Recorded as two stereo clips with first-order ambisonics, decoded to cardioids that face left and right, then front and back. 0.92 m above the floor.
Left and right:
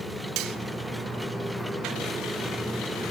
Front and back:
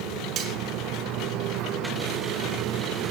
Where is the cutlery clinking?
125° right, 2.5 m.